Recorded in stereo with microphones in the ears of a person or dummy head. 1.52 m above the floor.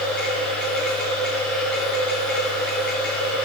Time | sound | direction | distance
0.0 | a machine running | 10° left (ahead or behind) | 3 m